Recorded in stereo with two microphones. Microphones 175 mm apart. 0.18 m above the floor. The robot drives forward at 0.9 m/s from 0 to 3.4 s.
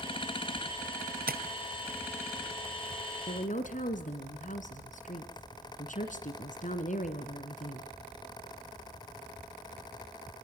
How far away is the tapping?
About 1.1 m.